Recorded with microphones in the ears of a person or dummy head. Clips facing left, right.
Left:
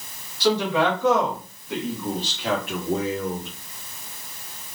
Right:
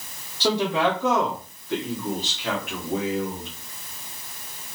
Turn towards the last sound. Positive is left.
turn(degrees=50)  # may be behind; listen again after turning